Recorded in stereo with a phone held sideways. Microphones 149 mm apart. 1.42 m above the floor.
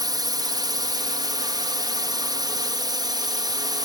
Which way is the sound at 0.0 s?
25° right (ahead or behind).